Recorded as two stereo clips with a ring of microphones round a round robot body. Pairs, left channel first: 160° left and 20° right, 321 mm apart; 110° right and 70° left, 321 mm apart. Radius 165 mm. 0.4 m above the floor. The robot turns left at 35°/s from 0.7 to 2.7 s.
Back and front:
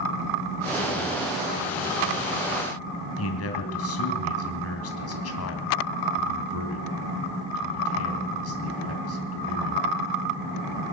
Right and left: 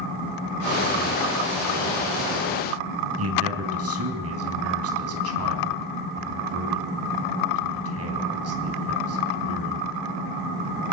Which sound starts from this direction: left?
A man speaking, at 3.2 s.